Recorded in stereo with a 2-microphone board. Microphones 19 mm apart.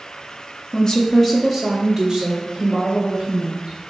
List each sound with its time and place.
0.7 s a woman speaking: 45° left (ahead or behind), 0.7 m; by 3.8 s 25° right (ahead or behind), 2.5 m